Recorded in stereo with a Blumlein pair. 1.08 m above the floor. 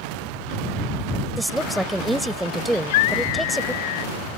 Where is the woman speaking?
5° right.